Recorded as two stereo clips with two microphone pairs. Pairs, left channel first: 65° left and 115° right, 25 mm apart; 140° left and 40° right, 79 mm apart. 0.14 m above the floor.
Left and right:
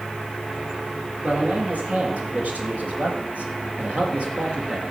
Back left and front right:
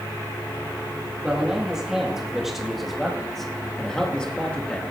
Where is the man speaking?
125° right, 4 m; by 4.8 s 155° right, 2.5 m.